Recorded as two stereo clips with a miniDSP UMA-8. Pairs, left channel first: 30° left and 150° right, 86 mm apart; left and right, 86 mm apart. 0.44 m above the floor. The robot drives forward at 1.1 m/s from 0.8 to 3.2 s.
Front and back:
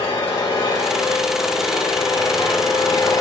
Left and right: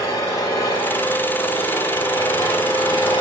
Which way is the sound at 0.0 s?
40° left.